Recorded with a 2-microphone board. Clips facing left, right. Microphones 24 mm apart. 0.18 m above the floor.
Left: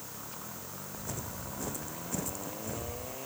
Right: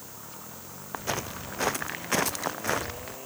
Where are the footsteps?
60° right (ahead or behind); by 3.2 s 80° right.